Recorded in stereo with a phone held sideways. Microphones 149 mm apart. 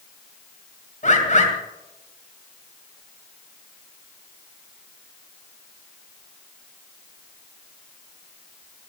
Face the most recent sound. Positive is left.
turn(degrees=55)  # may be behind; listen again after turning